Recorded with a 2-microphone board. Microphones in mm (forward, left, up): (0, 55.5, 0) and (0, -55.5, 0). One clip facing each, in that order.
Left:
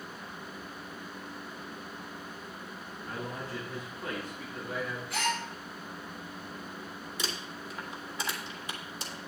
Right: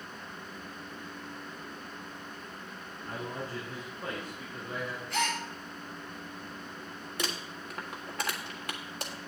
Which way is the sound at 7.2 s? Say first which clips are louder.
Right 2 dB; 60° right (ahead or behind).